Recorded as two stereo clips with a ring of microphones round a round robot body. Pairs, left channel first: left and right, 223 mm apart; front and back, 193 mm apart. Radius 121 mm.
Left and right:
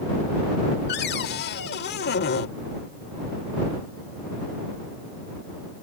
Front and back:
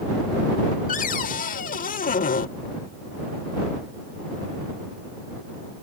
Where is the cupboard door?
45° left.